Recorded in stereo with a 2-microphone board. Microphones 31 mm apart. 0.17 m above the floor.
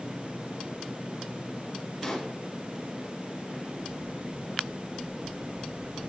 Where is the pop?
10° left (ahead or behind), 3 m.